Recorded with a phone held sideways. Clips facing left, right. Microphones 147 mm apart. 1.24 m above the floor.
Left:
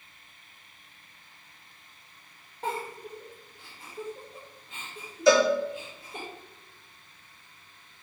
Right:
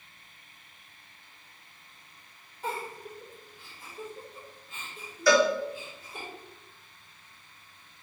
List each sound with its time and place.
2.6 s a giggle: 65° left (ahead or behind), 1.7 m
5.3 s a cowbell: 20° left (ahead or behind), 0.7 m